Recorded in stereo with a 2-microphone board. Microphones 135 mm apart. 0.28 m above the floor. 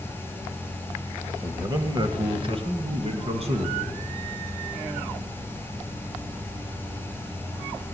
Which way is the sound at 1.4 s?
20° right (ahead or behind).